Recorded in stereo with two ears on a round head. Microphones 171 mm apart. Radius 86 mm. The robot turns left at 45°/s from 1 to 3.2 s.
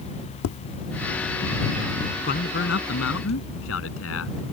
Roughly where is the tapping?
Left.